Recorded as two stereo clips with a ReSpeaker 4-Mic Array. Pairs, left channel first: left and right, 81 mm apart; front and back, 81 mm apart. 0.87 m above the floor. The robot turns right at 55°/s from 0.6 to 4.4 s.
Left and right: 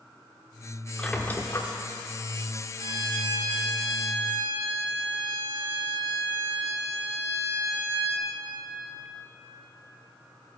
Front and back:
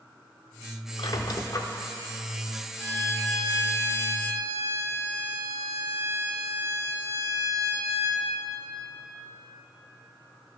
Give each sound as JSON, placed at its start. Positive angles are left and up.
{"t": 1.0, "sound": "a squeak", "azimuth_deg": 10, "distance_m": 0.7}
{"t": 2.8, "sound": "a violin", "azimuth_deg": 55, "distance_m": 1.7}